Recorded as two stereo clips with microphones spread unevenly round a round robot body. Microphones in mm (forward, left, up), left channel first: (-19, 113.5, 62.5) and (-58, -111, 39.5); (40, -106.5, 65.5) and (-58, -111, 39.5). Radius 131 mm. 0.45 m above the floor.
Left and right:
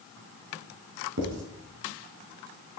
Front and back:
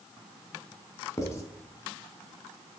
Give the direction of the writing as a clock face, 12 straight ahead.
2 o'clock.